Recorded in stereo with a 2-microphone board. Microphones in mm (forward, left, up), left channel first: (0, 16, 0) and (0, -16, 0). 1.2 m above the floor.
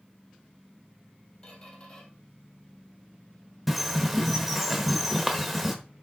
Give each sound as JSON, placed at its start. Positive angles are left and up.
{"t": 1.4, "sound": "a squeak", "side_deg": 35, "distance_m": 1.9}
{"t": 3.7, "sound": "a bird", "side_deg": -5, "distance_m": 1.1}